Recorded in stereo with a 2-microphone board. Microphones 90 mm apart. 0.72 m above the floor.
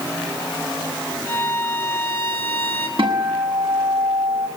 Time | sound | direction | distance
1.3 | a violin | 25° left (ahead or behind) | 3.5 m
3.0 | a guitar | 65° right (ahead or behind) | 6.5 m